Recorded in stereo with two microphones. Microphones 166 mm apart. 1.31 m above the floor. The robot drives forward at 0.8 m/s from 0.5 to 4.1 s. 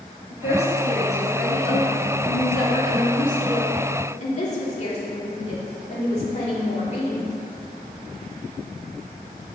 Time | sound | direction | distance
0.3 | a woman speaking | 75° left (ahead or behind) | 2 m